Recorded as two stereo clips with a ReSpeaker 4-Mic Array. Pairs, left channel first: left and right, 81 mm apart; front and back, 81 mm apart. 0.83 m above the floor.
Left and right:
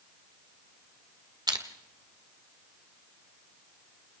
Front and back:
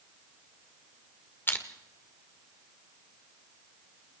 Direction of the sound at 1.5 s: 65° right.